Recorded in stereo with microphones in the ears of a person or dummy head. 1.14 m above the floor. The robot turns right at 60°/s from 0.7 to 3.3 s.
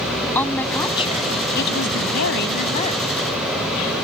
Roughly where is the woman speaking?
Ahead.